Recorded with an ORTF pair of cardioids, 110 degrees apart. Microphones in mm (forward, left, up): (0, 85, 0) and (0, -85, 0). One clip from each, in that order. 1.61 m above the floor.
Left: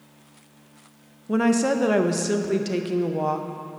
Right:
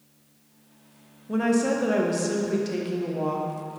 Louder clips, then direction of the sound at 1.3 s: Left 2 dB; 30° left.